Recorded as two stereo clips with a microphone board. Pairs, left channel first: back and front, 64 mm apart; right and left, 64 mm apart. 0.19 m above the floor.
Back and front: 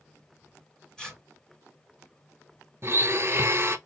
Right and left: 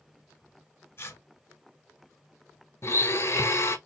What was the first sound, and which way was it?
Tearing paper, 105° right.